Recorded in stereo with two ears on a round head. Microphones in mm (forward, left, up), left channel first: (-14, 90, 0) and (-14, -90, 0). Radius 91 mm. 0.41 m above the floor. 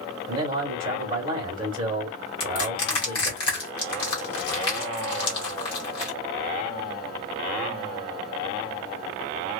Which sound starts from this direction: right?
A man speaking, at 0.3 s.